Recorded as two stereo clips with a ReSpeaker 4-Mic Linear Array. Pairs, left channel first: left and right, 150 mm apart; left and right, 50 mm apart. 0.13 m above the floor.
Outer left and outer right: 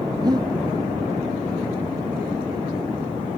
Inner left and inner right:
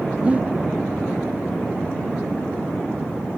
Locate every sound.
0.2 s breathing: 25° right (ahead or behind)